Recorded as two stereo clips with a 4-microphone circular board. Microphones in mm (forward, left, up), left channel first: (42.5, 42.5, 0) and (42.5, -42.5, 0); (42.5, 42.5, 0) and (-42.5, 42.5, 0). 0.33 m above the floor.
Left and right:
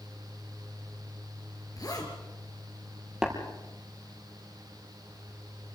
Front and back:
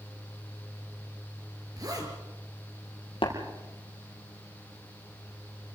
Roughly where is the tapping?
Ahead.